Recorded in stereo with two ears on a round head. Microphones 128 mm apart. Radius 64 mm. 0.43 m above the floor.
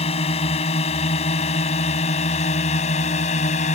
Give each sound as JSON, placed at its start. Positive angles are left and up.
{"t": 0.0, "sound": "a drone", "side_deg": 40}